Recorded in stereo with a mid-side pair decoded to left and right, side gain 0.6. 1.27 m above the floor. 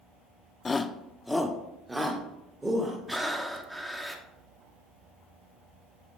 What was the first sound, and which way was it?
A shout, 25° left.